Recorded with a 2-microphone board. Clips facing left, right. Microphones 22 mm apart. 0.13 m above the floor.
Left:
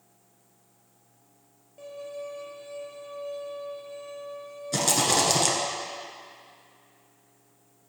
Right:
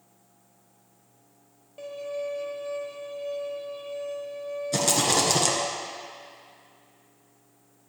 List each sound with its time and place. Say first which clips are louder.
1.8 s a violin: right 5 dB; 30° right (ahead or behind), 0.9 m
4.7 s a rattle: even; 5° left (ahead or behind), 1.5 m